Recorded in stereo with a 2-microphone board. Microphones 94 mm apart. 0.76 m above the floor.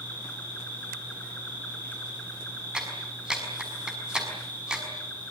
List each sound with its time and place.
0.0 s an insect: 20° left (ahead or behind), 8.5 m
2.7 s a clap: 10° right (ahead or behind), 6 m